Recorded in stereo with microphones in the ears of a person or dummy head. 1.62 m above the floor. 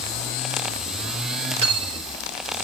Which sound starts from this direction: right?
Cutlery clinking, at 1.6 s.